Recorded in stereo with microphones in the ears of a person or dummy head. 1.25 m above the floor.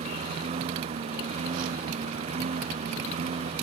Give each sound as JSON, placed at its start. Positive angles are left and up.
{"t": 0.0, "sound": "a lawn mower", "side_deg": -35}